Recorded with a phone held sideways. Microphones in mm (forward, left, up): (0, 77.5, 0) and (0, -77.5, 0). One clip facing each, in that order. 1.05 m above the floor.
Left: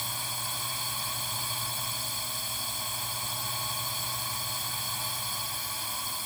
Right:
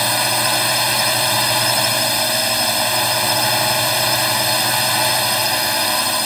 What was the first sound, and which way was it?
A drone, 80° right.